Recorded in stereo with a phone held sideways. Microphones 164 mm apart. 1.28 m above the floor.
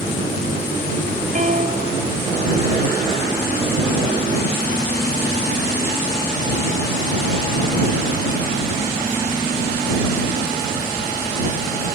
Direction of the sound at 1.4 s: 50° right (ahead or behind).